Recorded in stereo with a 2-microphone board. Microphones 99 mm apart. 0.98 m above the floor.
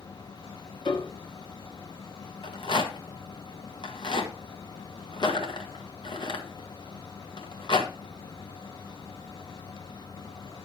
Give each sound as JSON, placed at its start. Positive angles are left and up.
{"t": 0.8, "sound": "a piano", "side_deg": 50, "distance_m": 1.0}
{"t": 2.4, "sound": "a rattle", "side_deg": 55, "distance_m": 1.4}